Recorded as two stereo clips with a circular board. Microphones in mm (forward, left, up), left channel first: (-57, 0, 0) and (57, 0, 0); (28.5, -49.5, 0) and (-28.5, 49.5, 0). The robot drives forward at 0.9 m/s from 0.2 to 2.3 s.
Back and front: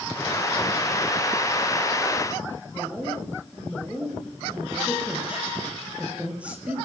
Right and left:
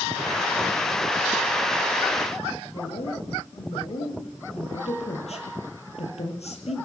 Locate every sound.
2.7 s a woman speaking: 80° right, 8.5 m